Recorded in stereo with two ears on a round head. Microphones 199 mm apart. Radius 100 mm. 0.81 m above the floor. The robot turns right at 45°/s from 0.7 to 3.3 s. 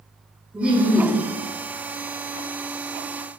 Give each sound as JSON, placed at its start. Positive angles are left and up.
{"t": 0.5, "sound": "laughter", "side_deg": -5, "distance_m": 1.7}